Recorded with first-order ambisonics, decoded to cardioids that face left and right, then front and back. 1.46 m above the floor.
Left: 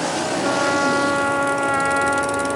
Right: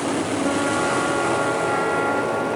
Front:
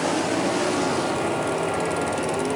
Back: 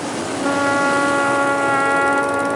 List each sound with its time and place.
0.4 s a trumpet: 160° left